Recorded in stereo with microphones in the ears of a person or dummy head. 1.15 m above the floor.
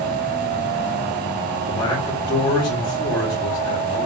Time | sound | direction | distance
1.7 | a man speaking | 20° left (ahead or behind) | 2.5 m